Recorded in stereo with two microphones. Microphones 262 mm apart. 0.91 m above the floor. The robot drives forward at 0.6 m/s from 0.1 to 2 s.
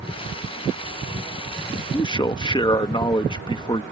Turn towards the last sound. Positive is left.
turn(degrees=20)  # may be behind; listen again after turning